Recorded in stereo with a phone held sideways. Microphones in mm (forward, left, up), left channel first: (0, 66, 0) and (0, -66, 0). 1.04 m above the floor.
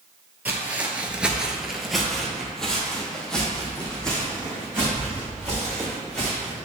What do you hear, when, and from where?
0.5 s footsteps: 10° right (ahead or behind), 1.3 m; by 6.5 s 5° left (ahead or behind), 6 m